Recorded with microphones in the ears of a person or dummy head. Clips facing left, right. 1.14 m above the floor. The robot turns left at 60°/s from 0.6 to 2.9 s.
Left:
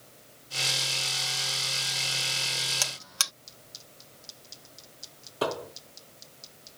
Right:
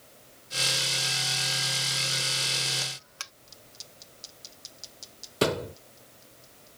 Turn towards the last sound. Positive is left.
turn(degrees=-35)  # may be behind; listen again after turning